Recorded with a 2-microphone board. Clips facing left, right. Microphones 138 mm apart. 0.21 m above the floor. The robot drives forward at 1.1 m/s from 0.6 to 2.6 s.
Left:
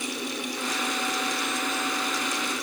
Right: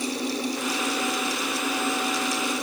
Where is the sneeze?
No sneeze in this recording.